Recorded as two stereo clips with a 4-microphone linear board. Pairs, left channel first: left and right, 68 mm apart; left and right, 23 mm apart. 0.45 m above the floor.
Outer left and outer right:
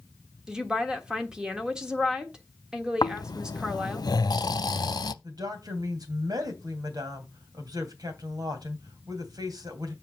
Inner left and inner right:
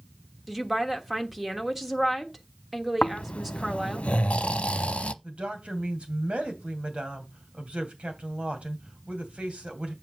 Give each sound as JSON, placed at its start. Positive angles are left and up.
{"t": 0.5, "sound": "a woman speaking", "side_deg": -10, "distance_m": 1.3}
{"t": 3.0, "sound": "snoring", "side_deg": 80, "distance_m": 0.6}
{"t": 5.2, "sound": "a woman speaking", "side_deg": -65, "distance_m": 2.5}